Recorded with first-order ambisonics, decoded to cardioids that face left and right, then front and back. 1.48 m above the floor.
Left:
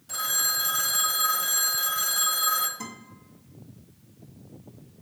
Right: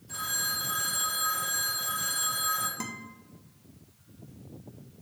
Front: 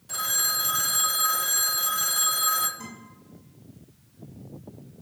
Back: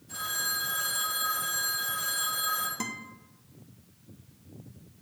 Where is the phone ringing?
30° left, 0.8 m.